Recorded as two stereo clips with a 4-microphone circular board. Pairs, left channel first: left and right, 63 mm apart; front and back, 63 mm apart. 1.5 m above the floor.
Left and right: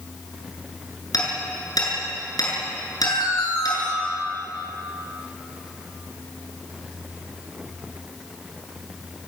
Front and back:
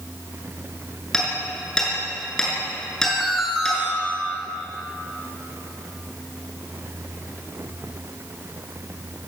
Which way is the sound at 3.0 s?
95° left.